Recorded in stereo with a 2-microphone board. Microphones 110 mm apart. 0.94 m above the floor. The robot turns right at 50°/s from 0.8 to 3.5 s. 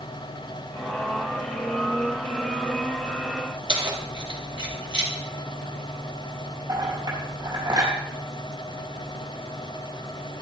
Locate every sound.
3.7 s keys jangling: 50° right (ahead or behind), 2.5 m
6.7 s a clink: 45° right (ahead or behind), 5 m